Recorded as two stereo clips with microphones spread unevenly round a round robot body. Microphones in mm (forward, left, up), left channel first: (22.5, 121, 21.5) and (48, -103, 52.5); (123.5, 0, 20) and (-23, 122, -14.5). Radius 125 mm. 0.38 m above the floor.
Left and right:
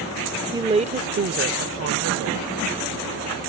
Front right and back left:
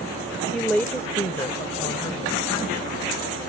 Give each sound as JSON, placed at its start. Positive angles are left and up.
{"t": 0.5, "sound": "a woman speaking", "azimuth_deg": -155}